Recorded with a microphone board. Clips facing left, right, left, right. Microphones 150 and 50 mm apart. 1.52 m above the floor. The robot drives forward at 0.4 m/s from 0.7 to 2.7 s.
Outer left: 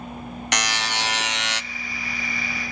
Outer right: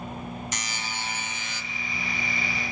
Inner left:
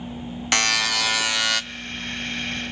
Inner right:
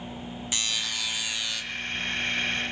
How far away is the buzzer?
About 0.9 m.